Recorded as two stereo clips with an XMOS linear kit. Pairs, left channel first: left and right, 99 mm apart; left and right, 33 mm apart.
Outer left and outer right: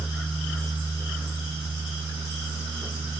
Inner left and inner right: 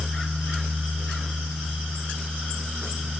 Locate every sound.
Only background noise.